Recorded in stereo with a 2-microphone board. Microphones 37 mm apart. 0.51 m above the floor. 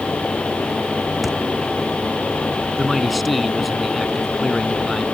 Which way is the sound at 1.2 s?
Centre (ahead or behind).